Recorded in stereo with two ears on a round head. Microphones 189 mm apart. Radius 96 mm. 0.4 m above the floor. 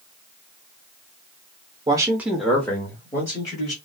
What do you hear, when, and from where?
1.9 s a man speaking: 20° right (ahead or behind), 0.8 m; by 3.8 s 20° left (ahead or behind), 2 m